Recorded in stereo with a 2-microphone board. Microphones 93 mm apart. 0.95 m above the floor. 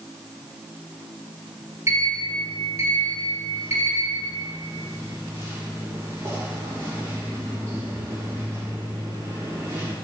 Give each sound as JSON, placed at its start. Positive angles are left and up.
{"t": 1.9, "sound": "a sliding door", "side_deg": -35, "distance_m": 2.5}